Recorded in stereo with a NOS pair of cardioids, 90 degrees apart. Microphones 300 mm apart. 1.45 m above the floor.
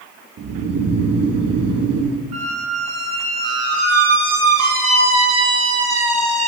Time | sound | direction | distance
0.4 | snoring | 55° right | 0.8 m
2.3 | a squeak | 60° right | 1.2 m